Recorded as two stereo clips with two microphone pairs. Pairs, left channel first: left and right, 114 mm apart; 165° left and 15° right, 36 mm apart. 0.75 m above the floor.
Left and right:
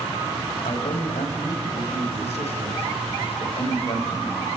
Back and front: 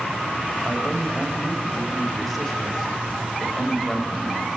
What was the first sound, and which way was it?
A man speaking, 80° left.